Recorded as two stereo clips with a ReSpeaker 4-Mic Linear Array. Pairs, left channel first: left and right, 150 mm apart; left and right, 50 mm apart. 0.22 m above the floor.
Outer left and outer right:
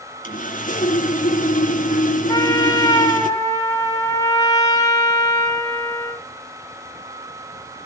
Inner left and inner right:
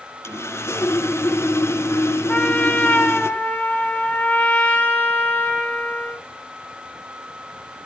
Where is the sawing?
60° left (ahead or behind), 3.5 m.